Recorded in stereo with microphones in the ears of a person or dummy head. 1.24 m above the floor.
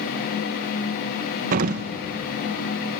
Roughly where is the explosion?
Right.